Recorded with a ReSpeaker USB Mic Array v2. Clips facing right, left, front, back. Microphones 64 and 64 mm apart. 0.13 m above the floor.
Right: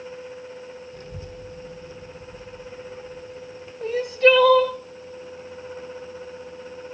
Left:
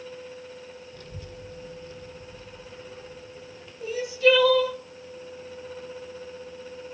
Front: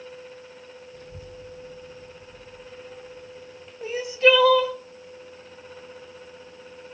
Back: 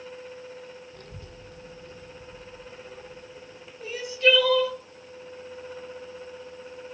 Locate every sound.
0.9 s a child speaking: 150° right, 2.5 m; by 3.7 s 170° right, 4 m
3.8 s crying: 70° right, 2.5 m